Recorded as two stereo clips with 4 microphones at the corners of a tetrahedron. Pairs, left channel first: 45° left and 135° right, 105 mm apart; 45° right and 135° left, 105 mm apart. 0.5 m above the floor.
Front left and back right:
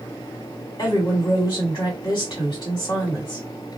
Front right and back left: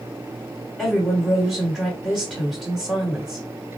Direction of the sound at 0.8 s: 35° left.